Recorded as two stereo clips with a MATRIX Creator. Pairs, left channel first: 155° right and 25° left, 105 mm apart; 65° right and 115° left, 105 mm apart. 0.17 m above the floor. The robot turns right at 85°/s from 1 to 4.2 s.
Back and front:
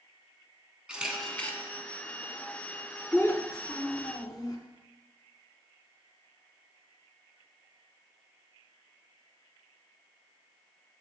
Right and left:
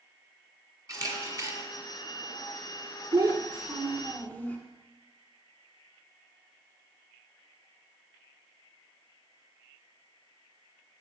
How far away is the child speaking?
About 0.8 m.